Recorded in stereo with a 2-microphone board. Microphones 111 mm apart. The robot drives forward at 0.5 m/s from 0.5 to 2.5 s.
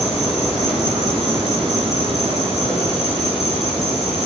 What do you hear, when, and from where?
0.0 s an insect: 85° left, 9 m; by 4.3 s 80° left, 9.5 m